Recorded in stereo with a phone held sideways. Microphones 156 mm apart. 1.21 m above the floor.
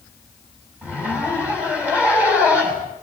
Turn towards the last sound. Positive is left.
turn(degrees=-10)  # may be behind; listen again after turning